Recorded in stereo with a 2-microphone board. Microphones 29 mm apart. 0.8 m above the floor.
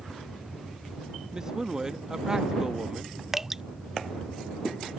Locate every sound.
1.3 s a man speaking: 20° right (ahead or behind)
3.3 s dripping: 15° right (ahead or behind)